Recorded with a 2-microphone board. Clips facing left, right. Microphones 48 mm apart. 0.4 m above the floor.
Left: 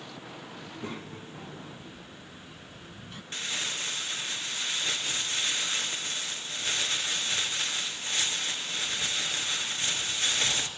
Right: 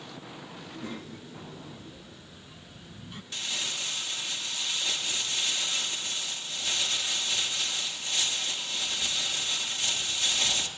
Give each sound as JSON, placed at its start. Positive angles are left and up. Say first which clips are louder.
{"t": 0.6, "sound": "a child speaking", "louder": "even", "side_deg": 45, "distance_m": 2.5}
{"t": 3.3, "sound": "crumpling", "louder": "left 1 dB", "side_deg": 40, "distance_m": 2.5}